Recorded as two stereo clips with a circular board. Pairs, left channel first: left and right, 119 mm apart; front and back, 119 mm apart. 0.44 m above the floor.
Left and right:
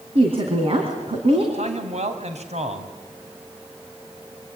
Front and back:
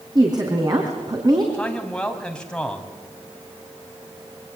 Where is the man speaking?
80° right, 3.5 m.